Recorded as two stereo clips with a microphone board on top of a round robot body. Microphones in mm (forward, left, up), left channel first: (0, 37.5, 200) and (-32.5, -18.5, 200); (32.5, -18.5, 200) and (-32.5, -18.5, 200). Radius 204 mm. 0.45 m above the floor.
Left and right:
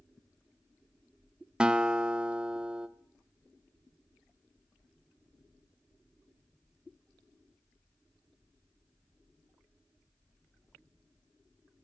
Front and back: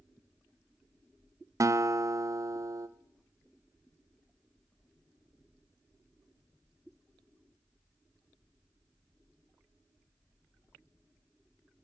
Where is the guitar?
165° left, 0.7 m.